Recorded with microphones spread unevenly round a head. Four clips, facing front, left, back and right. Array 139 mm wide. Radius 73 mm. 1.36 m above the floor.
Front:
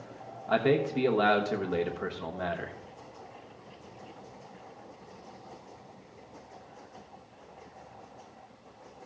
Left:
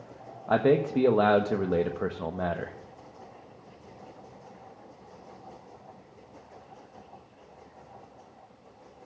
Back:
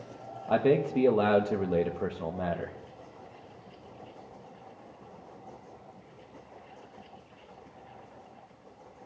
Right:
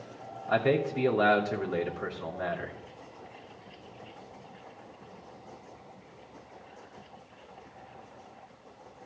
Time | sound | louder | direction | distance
0.5 | a man speaking | left 3 dB, back 1 dB | 120° left | 1.1 m